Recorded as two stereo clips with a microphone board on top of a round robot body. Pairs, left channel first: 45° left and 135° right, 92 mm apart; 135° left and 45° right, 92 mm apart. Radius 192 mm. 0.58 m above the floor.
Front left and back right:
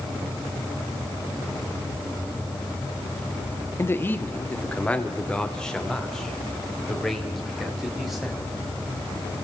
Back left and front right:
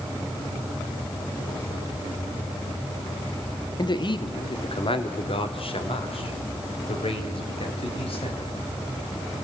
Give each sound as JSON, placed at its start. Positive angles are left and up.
{"t": 3.8, "sound": "a man speaking", "azimuth_deg": 105, "distance_m": 1.7}